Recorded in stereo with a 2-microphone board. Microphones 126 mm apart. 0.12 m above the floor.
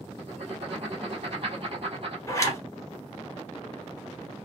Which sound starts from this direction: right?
Writing, at 0.2 s.